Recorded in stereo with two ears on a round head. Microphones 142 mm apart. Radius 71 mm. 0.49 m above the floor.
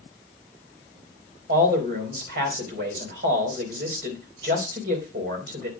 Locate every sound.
1.5 s a man speaking: 65° right (ahead or behind), 3 m